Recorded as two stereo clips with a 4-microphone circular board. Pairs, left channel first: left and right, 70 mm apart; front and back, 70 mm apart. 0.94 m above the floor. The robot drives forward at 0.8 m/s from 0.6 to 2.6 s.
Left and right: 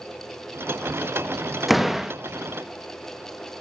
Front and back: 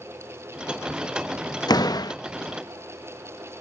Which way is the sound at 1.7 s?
5° right.